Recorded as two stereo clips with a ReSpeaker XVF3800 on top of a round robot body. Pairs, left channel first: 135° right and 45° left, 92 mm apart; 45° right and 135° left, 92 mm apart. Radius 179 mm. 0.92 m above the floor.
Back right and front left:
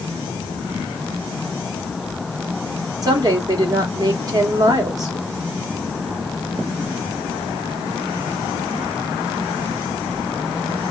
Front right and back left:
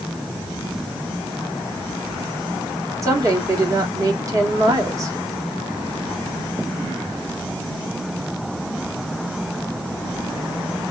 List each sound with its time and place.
3.0 s a woman speaking: 85° left, 1.3 m